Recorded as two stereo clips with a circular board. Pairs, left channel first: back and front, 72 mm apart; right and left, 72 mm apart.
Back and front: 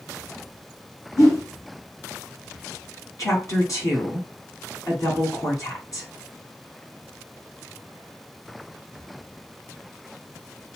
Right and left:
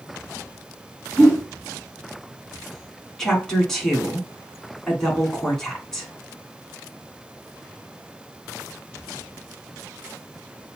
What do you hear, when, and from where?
1.2 s a whoosh: 165° right, 2.5 m
3.2 s a woman speaking: 170° right, 1.9 m